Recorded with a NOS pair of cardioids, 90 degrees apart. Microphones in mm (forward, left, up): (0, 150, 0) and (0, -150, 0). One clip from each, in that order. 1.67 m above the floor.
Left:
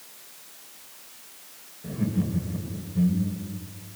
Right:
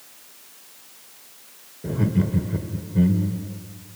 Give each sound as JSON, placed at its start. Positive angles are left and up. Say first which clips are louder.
{"t": 1.8, "sound": "laughter", "louder": "right 5 dB", "azimuth_deg": -70, "distance_m": 1.5}